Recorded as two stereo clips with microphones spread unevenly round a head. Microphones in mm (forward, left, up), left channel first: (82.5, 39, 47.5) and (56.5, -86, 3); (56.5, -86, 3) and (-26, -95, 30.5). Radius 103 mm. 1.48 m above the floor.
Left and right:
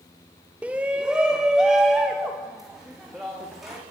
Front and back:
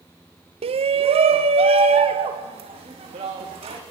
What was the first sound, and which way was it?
A shout, 175° right.